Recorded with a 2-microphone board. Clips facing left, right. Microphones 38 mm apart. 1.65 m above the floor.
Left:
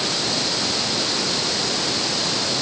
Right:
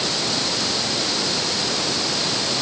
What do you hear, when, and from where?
Only background noise.